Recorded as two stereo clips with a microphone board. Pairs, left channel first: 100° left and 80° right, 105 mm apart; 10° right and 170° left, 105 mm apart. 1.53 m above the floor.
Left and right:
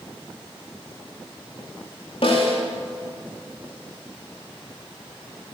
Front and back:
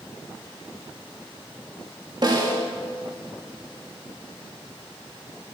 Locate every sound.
2.2 s a snare drum: 125° left, 4 m